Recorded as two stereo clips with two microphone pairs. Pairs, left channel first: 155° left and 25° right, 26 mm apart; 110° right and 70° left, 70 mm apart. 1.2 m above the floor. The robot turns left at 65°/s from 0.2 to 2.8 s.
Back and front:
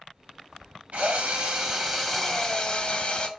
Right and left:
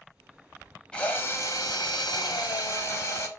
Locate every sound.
0.9 s a drill: 30° right, 1.7 m; by 3.3 s 155° right, 1.7 m